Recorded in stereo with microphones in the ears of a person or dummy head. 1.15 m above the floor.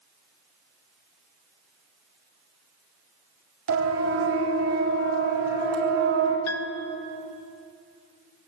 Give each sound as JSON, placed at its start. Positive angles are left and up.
{"t": 3.7, "sound": "a siren", "side_deg": -75, "distance_m": 4.0}
{"t": 6.5, "sound": "a piano", "side_deg": 80, "distance_m": 1.1}